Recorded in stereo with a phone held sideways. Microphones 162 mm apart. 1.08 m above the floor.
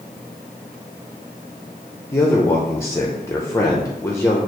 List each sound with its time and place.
2.1 s a man speaking: 15° left (ahead or behind), 0.6 m